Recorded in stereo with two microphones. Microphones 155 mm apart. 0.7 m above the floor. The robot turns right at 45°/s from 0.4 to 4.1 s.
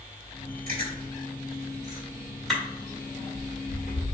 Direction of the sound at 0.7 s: 75° right (ahead or behind).